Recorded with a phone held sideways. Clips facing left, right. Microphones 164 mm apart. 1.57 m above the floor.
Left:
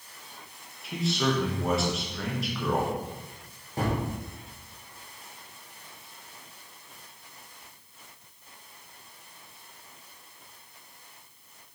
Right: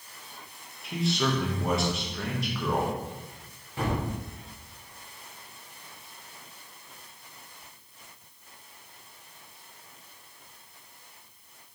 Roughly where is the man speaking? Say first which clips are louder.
Even; centre.